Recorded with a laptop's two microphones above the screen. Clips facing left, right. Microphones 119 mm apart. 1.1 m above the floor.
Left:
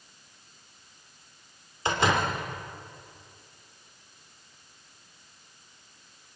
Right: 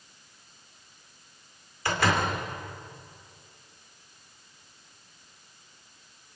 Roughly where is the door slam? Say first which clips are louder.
Left 1 dB; left.